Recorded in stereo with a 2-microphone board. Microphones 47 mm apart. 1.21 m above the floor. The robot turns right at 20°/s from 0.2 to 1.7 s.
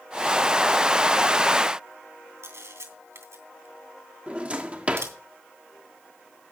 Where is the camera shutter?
75° right (ahead or behind), 3 m.